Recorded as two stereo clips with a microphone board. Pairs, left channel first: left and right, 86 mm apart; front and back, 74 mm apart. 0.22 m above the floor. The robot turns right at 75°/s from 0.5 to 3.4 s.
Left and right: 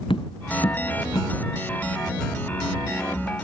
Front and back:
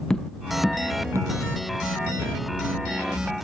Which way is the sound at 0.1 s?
80° left.